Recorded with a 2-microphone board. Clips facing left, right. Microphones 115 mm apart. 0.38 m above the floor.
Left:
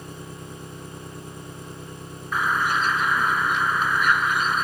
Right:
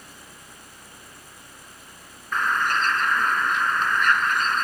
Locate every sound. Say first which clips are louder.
0.0 s an engine running: left 9 dB; 55° left (ahead or behind)
2.3 s a bird: even; 5° left (ahead or behind)